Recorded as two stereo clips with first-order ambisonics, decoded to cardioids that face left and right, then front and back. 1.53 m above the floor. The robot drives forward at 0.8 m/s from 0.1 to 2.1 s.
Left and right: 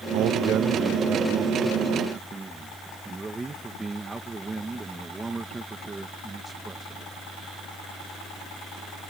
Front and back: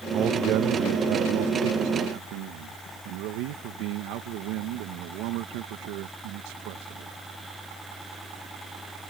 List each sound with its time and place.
0.1 s a man speaking: 120° right; by 7.1 s 165° right